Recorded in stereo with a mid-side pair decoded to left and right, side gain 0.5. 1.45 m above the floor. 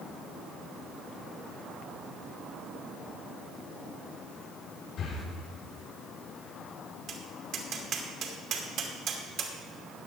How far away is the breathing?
About 4.5 m.